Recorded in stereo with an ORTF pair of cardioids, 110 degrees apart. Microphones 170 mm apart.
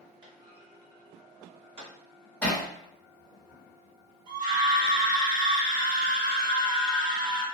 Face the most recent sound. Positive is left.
turn(degrees=-50)